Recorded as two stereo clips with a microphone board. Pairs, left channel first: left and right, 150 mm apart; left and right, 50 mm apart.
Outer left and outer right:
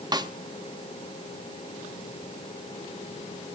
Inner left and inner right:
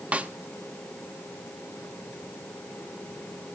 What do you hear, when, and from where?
0.1 s a snare drum: 30° right (ahead or behind), 0.8 m